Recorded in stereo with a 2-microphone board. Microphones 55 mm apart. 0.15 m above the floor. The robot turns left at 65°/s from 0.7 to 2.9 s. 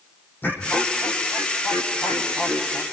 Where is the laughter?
145° left, 6 m; by 2.8 s 5° left, 6 m.